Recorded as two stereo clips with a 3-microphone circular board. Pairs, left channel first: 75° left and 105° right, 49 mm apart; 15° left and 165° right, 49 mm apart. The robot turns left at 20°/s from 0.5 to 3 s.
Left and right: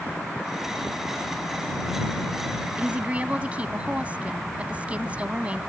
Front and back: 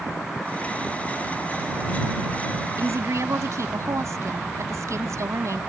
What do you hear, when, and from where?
2.8 s a woman speaking: 165° right; by 5.6 s 170° right